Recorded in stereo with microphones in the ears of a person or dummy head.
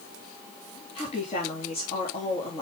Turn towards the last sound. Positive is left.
turn(degrees=40)  # may be behind; listen again after turning